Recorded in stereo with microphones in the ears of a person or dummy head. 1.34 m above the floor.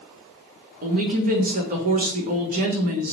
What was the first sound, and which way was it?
A woman speaking, 45° right (ahead or behind).